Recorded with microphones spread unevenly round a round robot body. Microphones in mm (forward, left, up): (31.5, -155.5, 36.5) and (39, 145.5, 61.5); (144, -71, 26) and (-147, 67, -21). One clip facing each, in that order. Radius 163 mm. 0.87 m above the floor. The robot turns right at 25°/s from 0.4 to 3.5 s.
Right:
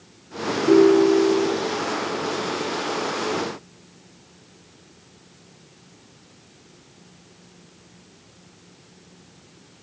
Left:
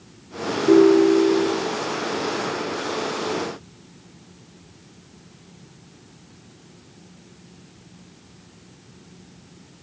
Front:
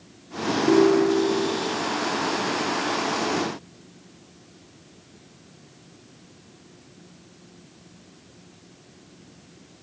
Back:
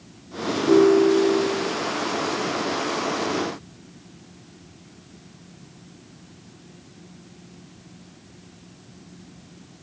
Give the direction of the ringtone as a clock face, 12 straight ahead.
3 o'clock.